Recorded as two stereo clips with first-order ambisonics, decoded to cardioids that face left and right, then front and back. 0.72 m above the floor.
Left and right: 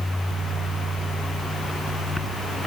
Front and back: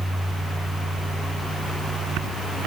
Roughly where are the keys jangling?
No keys jangling in this recording.